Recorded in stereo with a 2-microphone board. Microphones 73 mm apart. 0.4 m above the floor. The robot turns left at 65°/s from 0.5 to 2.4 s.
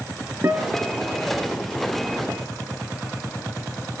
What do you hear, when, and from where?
0.4 s a guitar: 150° right, 4 m; by 1.0 s straight behind, 4 m